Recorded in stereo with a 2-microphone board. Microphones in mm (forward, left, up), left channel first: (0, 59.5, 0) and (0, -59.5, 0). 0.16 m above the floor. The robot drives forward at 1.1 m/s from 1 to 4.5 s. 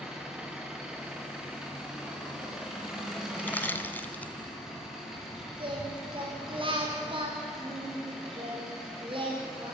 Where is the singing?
45° right (ahead or behind), 6.5 m.